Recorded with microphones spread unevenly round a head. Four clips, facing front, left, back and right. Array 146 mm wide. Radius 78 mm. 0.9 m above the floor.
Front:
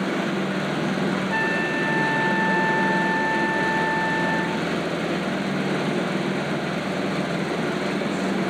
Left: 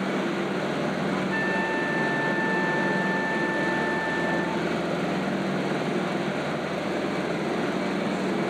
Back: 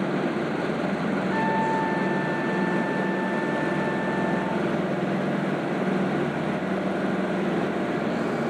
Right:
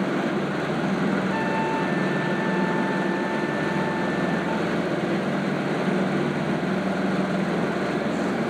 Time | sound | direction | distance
1.3 | a trumpet | 5° left | 1.7 m